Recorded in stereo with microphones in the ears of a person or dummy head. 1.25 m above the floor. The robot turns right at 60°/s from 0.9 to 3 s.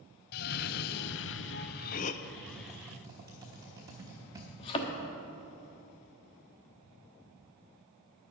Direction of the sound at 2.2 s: 15° left (ahead or behind).